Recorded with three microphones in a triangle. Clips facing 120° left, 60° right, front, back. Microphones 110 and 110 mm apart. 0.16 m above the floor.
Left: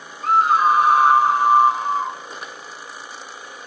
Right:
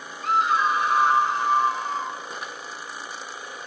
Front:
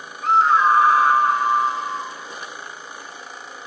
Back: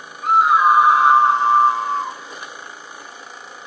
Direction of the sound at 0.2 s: 95° left.